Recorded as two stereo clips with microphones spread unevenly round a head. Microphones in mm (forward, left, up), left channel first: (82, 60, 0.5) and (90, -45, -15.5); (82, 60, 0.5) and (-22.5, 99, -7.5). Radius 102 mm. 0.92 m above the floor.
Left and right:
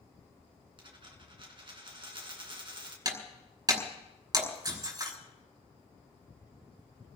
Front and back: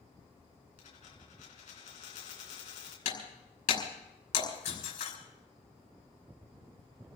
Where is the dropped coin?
45° right, 3.5 m.